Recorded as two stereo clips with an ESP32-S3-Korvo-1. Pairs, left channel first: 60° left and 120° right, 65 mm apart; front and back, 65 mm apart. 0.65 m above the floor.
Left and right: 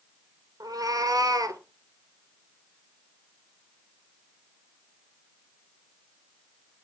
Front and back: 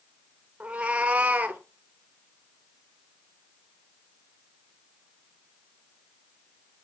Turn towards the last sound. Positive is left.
turn(degrees=-115)